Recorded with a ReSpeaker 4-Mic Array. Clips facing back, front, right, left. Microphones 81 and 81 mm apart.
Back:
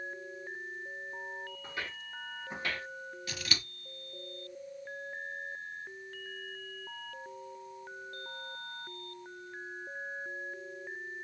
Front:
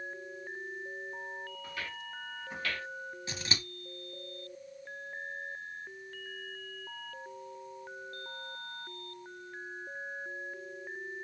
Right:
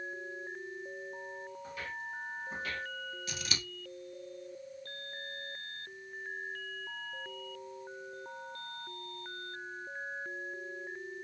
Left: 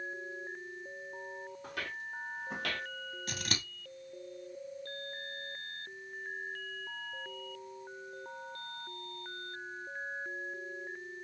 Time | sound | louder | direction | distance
1.6 | footsteps | even, left 2 dB | 115° left | 2.5 m
3.3 | scissors | even, left 2 dB | 60° left | 2 m